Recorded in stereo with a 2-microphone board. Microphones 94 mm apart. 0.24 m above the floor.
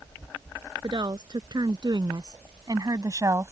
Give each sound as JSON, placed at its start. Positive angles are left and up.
{"t": 0.8, "sound": "a woman speaking", "side_deg": -50}